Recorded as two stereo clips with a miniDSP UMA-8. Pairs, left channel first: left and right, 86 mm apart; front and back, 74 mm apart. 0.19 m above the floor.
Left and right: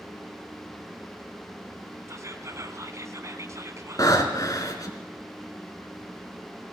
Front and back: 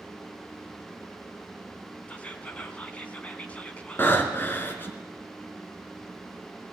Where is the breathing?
55° left, 2.5 m.